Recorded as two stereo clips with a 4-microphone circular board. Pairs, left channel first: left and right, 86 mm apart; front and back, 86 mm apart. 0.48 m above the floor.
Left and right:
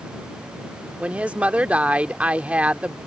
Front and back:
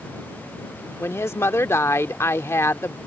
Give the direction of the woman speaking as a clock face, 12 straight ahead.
1 o'clock.